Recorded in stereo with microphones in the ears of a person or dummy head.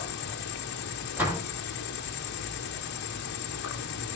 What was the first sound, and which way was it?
An insect, 55° left (ahead or behind).